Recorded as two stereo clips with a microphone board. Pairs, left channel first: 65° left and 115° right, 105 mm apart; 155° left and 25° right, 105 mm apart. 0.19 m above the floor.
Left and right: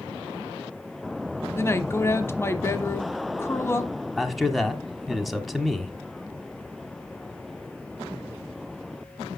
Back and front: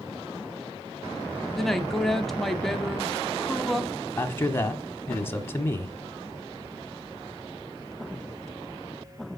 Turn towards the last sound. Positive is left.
turn(degrees=155)